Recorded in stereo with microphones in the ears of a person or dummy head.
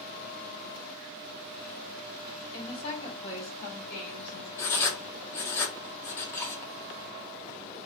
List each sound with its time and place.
2.5 s a woman speaking: 30° left (ahead or behind), 1.5 m; by 4.5 s 65° left (ahead or behind), 1.8 m
4.6 s writing: 15° left (ahead or behind), 0.7 m